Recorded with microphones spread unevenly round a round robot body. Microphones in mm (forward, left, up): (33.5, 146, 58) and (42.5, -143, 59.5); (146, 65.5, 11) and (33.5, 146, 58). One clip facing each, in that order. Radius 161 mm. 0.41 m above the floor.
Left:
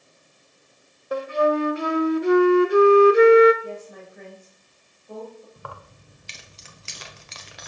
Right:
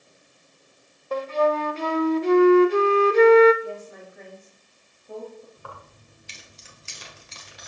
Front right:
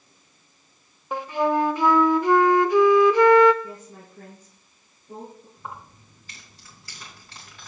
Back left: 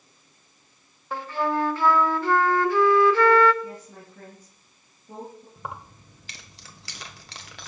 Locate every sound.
1.1 s a flute: 15° left, 0.8 m
3.6 s a woman speaking: 175° right, 2 m
5.6 s keys jangling: 115° left, 1.3 m